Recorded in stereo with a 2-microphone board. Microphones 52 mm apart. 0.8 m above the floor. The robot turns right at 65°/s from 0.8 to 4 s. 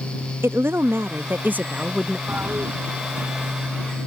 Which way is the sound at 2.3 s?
35° right (ahead or behind).